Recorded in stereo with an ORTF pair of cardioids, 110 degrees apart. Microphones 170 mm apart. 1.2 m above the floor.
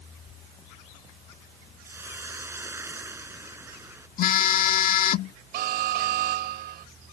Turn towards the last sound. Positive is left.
turn(degrees=-70)